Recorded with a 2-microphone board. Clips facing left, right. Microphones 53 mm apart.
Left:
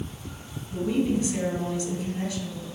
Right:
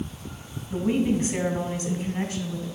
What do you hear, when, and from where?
0.7 s a woman speaking: 50° right (ahead or behind), 1.9 m